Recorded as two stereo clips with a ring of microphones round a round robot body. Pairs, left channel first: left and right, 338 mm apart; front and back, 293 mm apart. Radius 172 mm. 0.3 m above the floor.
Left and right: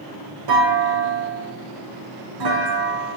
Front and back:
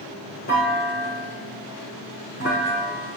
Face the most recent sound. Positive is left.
turn(degrees=-65)